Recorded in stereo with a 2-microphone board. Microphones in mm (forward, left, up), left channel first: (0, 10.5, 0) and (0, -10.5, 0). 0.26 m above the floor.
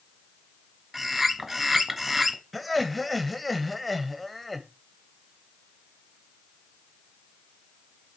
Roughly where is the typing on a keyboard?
I don't hear typing on a keyboard.